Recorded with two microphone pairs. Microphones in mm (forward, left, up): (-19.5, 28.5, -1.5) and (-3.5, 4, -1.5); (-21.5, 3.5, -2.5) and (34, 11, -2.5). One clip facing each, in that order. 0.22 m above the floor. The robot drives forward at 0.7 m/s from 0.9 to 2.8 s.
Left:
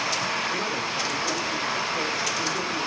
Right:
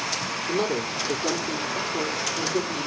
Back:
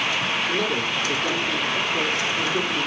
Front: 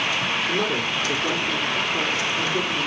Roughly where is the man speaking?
Right.